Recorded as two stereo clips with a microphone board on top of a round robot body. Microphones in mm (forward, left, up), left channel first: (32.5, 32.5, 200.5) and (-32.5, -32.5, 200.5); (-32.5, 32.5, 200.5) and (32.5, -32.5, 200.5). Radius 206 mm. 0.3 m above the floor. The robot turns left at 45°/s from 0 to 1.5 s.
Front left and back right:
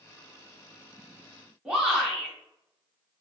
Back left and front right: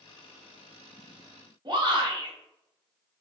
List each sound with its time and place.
1.6 s a shout: 55° right, 1.3 m